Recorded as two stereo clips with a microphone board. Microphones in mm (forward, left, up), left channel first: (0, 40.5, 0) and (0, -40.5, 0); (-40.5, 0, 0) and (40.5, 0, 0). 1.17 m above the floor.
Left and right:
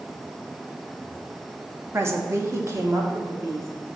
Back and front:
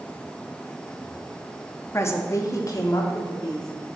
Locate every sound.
1.9 s a woman speaking: 140° right, 0.8 m